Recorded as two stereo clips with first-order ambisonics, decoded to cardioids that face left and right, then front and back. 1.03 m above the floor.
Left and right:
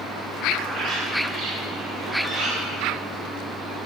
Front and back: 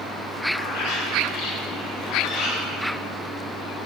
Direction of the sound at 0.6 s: 30° right.